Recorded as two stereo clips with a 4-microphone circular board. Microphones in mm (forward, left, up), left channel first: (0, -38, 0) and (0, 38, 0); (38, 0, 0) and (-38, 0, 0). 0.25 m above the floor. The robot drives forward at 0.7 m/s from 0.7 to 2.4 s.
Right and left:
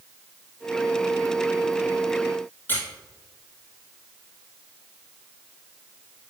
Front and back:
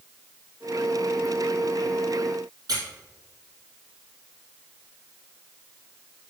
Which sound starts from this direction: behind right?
A squeak, at 2.7 s.